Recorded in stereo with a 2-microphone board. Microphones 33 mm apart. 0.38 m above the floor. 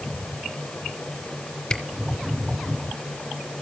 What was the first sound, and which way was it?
A camera shutter, 20° left (ahead or behind).